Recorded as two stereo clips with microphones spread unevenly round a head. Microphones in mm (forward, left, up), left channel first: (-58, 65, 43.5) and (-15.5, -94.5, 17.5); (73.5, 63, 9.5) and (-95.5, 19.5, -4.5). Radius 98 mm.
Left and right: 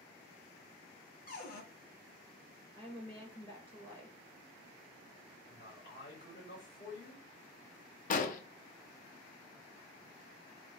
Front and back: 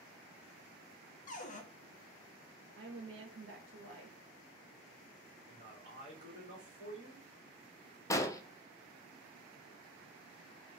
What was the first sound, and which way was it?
A cupboard door, 60° left.